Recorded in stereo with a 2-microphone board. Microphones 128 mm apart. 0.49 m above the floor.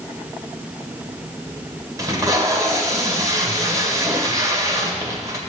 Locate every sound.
2.0 s tape being pulled: 30° right (ahead or behind), 1.7 m